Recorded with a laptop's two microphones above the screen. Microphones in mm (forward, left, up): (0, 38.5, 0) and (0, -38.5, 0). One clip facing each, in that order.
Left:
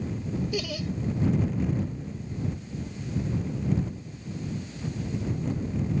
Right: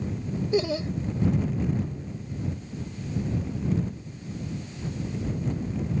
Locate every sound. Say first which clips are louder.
0.5 s laughter: right 6 dB; 30° right (ahead or behind)